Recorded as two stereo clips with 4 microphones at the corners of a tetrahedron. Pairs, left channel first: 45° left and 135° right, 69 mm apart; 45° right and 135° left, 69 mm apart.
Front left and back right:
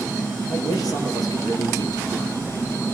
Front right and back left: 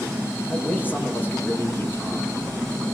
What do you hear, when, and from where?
0.5 s a man speaking: 15° left, 8.5 m